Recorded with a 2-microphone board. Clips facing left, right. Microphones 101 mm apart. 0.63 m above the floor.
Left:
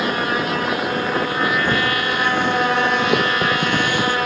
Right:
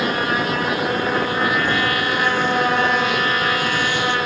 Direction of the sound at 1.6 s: 55° left (ahead or behind).